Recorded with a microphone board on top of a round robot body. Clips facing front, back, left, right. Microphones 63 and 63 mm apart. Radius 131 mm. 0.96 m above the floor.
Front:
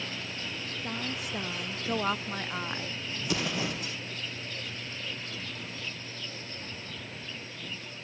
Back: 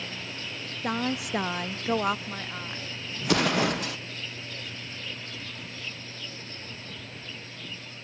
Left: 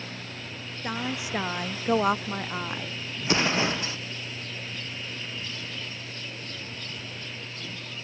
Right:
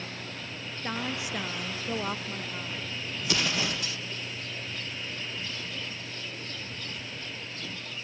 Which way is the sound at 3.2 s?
150° left.